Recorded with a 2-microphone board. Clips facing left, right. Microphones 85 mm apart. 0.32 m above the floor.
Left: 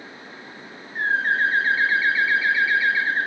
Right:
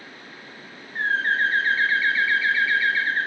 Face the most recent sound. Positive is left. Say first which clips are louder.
# left 1 dB
turn(degrees=5)  # may be behind; listen again after turning